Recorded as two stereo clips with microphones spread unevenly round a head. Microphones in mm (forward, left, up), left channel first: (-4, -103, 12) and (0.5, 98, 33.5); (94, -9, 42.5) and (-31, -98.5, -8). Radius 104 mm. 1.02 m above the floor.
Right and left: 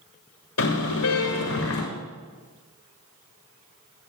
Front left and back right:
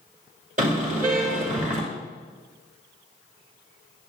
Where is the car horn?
105° right, 7 m.